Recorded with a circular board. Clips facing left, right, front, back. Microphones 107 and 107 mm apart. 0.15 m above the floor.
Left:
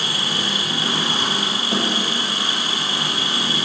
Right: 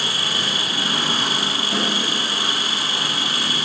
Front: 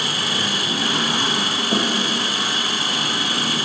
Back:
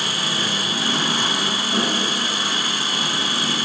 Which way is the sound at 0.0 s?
25° left.